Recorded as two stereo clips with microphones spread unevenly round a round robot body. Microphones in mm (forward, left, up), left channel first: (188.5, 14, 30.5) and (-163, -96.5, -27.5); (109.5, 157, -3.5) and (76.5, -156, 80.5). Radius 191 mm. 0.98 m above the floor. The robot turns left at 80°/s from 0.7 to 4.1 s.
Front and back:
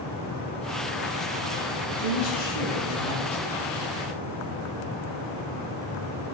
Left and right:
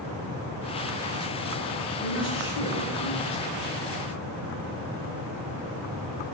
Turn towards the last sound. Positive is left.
turn(degrees=75)